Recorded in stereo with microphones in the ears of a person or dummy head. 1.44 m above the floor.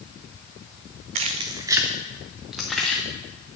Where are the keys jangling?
45° right (ahead or behind), 0.8 m; by 3.0 s 5° left (ahead or behind), 2.0 m.